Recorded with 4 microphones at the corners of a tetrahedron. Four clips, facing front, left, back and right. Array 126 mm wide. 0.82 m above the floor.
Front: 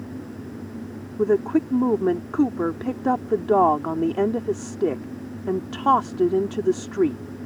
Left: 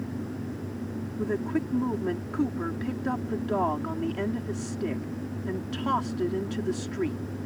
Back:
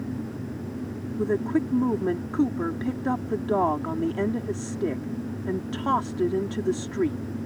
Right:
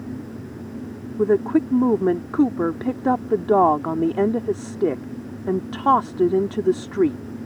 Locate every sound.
1.2 s a woman speaking: 55° right